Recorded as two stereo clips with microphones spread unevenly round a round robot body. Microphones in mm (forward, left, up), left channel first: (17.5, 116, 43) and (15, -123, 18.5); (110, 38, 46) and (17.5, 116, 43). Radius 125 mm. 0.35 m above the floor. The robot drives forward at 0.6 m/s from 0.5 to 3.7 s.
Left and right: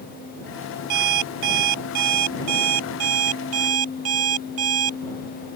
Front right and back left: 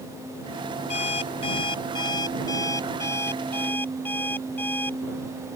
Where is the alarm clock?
100° right; by 5.0 s 120° right.